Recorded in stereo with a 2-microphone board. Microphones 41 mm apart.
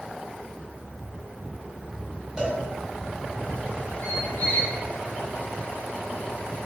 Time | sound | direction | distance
2.4 | a cowbell | 15° right (ahead or behind) | 1.6 m
4.0 | a squeak | 65° left (ahead or behind) | 1.0 m